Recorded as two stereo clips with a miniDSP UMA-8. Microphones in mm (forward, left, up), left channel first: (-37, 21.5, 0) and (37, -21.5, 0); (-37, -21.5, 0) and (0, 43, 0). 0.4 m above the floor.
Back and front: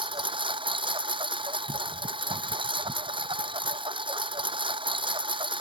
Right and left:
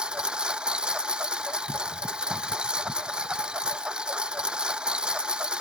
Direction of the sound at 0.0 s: 20° right.